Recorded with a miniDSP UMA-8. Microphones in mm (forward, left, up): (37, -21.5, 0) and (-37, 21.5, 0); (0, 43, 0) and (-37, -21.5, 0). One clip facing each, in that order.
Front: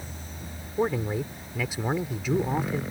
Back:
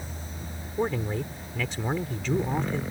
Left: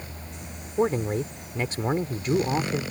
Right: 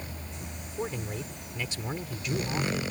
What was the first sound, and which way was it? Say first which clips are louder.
A man speaking: front 2 dB, left 11 dB; 45° left.